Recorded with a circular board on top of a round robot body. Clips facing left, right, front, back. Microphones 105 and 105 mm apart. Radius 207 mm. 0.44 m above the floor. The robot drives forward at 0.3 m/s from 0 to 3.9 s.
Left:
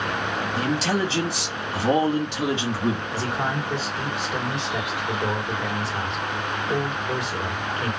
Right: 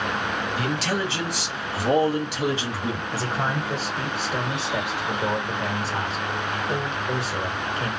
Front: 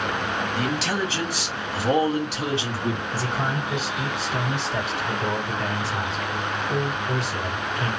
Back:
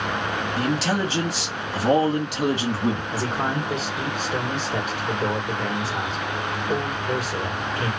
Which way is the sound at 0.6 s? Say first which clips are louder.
Left 4 dB, back 4 dB; 135° left.